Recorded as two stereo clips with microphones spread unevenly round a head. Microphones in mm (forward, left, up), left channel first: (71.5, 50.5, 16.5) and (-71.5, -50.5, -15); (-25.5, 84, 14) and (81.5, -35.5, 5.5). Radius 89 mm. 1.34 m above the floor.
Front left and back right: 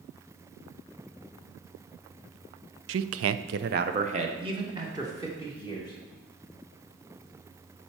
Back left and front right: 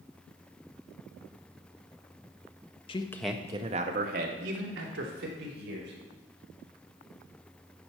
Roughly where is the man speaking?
Behind.